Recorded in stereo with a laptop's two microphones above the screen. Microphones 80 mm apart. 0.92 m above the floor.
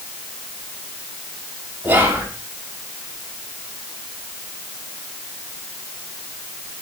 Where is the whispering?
25° right (ahead or behind), 2.5 m.